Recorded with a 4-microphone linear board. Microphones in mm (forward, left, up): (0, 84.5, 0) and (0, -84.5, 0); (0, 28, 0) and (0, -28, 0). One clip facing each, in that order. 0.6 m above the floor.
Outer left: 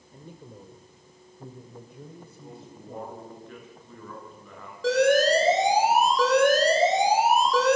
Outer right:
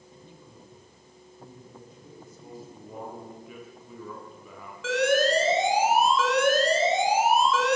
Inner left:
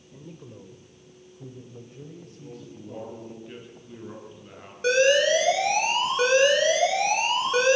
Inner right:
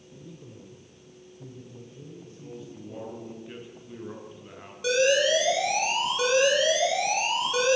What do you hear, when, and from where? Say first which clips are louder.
0.1 s a man speaking: outer left 7 dB, inner left 3 dB; 55° left (ahead or behind), 3 m; by 3.3 s 75° left (ahead or behind), 4.5 m
2.3 s a man speaking: outer right 1 dB, inner right 1 dB; 10° right (ahead or behind), 8 m
4.8 s an alarm: outer left 3 dB, inner left 3 dB; 40° left (ahead or behind), 5 m